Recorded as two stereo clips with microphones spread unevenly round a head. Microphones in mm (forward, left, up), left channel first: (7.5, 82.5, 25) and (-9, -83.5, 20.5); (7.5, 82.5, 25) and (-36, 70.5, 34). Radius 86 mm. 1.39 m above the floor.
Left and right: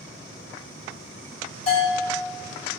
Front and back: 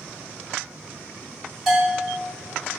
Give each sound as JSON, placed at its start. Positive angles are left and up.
{"t": 1.7, "sound": "a bell", "azimuth_deg": 125, "distance_m": 1.7}